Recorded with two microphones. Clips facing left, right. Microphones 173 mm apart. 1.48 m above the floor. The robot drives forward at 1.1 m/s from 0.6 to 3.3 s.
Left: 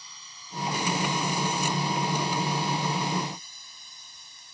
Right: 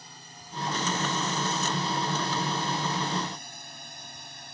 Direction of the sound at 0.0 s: 55° right (ahead or behind).